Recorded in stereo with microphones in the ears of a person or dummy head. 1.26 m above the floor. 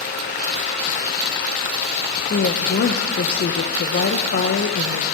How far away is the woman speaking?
About 1.0 m.